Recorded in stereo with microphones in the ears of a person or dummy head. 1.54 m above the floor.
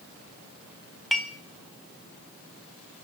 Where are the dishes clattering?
5° left (ahead or behind), 1.4 m.